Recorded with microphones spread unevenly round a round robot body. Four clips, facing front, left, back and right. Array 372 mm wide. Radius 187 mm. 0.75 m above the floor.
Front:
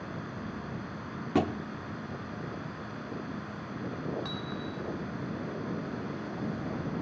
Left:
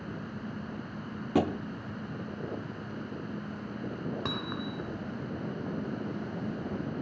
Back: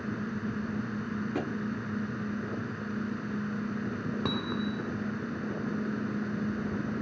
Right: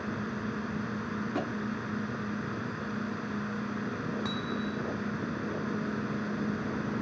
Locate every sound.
0.0 s a drone: 160° right
1.4 s a thud: 45° left
4.2 s hammering: 165° left